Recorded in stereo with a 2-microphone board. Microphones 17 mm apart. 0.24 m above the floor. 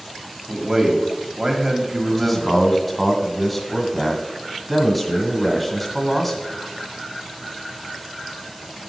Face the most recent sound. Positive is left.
turn(degrees=5)  # may be behind; listen again after turning